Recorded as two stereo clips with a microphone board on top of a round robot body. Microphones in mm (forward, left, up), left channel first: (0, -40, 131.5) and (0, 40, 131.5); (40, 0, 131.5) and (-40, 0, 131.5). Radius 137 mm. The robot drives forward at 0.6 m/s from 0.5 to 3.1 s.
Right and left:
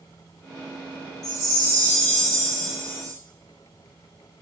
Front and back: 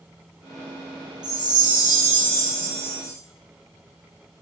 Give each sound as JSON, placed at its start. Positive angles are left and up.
{"t": 1.2, "sound": "a chime", "azimuth_deg": -140, "distance_m": 0.8}